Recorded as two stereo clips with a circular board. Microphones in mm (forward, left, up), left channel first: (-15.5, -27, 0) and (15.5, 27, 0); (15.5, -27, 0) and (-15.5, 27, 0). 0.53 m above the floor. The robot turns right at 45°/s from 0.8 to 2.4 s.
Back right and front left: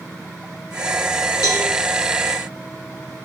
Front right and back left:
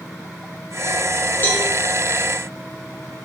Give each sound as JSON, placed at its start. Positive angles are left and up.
{"t": 1.4, "sound": "a cowbell", "azimuth_deg": -115, "distance_m": 1.9}